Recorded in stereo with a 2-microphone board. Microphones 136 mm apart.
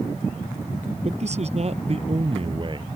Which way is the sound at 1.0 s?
55° right (ahead or behind).